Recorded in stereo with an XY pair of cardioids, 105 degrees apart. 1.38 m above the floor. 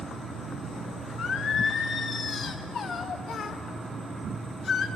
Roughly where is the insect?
Ahead right.